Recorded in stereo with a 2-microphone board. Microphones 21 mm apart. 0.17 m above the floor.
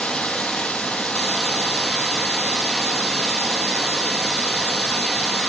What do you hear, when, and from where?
0.0 s running water: 80° left, 1.4 m